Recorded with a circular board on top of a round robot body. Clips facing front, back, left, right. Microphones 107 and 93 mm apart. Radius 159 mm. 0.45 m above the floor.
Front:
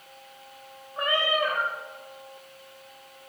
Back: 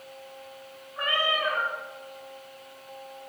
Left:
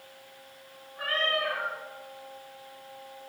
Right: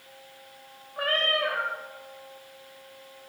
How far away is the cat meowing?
About 1.4 m.